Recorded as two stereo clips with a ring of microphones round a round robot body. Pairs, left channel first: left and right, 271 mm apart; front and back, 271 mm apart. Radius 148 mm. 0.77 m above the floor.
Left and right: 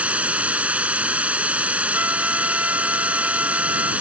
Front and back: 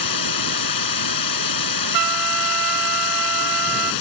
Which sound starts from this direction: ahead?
Running water, at 0.0 s.